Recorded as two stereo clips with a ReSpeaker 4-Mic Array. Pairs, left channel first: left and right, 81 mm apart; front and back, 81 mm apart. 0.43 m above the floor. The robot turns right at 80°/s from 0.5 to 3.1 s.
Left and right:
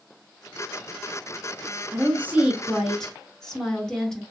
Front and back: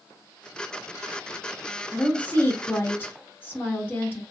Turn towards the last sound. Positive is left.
turn(degrees=20)